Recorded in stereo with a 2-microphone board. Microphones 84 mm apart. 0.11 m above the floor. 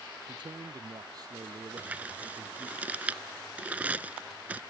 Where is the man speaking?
55° right (ahead or behind); by 2.8 s 35° right (ahead or behind).